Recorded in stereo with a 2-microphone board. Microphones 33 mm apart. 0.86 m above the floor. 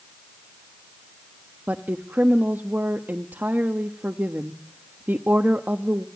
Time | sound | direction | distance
1.7 | a woman speaking | 65° right (ahead or behind) | 1.1 m